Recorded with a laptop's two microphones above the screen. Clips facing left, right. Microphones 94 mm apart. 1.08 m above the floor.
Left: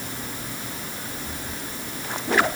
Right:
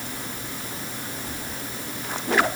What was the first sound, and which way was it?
Only background noise.